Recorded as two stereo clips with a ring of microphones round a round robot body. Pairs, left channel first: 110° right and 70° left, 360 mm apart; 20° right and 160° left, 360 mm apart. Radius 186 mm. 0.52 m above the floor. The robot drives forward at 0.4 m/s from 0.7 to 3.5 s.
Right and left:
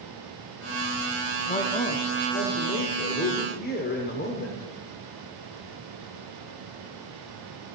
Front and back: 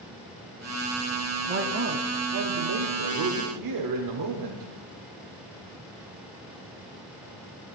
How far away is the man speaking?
About 0.7 m.